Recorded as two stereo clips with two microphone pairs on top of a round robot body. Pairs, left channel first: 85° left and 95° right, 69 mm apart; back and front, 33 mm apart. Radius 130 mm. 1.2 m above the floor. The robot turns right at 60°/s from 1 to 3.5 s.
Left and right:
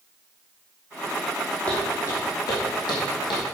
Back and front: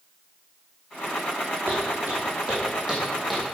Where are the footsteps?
10° left, 3 m; by 3.5 s 95° left, 2.5 m.